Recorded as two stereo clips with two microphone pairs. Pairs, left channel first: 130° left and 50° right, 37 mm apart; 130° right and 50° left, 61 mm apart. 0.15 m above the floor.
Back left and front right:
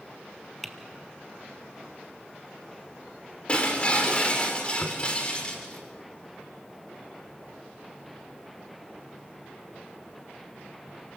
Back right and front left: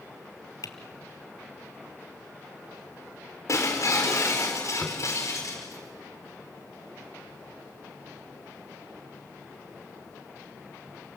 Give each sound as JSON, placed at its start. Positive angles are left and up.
{"t": 0.6, "sound": "typing on a keyboard", "azimuth_deg": -145, "distance_m": 1.6}
{"t": 3.5, "sound": "breaking glass", "azimuth_deg": -170, "distance_m": 5.5}
{"t": 4.8, "sound": "tapping", "azimuth_deg": 140, "distance_m": 1.0}